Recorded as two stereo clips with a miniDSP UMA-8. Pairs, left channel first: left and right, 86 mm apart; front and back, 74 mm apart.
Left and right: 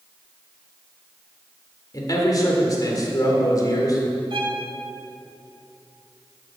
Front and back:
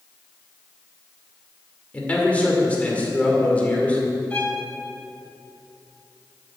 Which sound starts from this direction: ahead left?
A man speaking, at 1.9 s.